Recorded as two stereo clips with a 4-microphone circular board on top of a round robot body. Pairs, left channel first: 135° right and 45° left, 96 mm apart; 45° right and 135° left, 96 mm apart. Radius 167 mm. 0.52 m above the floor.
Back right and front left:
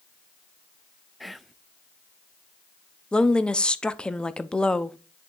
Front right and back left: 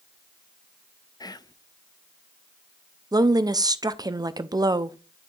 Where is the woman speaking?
150° left, 0.8 m.